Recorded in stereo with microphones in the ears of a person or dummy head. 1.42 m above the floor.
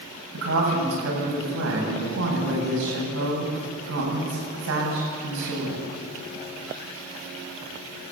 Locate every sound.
0.3 s a woman speaking: 85° right, 8 m